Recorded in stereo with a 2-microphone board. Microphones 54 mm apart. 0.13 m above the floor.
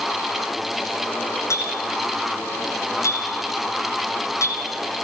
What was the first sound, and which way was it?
A clink, 65° left (ahead or behind).